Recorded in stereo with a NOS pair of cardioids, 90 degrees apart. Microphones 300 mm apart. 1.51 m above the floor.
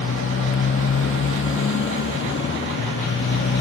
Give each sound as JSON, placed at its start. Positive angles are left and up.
{"t": 0.0, "sound": "a motorcycle", "azimuth_deg": 45}